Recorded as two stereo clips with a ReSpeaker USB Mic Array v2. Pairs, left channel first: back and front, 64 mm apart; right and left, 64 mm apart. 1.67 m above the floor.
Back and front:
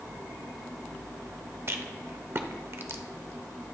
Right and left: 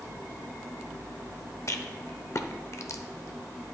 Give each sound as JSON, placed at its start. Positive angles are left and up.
{"t": 1.7, "sound": "a rattle", "azimuth_deg": -50, "distance_m": 0.7}